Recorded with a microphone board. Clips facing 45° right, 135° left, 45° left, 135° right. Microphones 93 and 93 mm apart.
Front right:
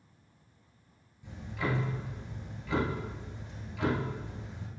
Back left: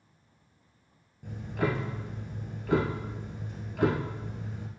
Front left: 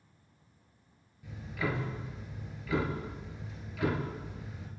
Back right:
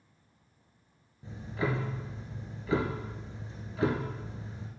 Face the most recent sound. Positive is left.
turn(degrees=170)